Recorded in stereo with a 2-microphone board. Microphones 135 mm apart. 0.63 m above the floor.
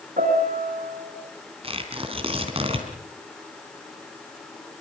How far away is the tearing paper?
About 3.5 m.